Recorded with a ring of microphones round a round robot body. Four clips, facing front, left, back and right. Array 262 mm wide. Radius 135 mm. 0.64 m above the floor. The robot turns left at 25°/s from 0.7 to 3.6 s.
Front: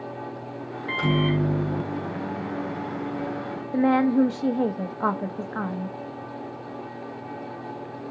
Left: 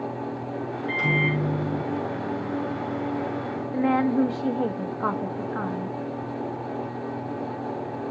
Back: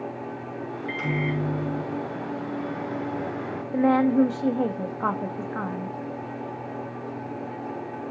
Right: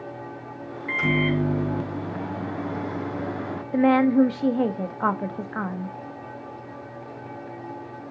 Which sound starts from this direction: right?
A woman speaking, at 3.7 s.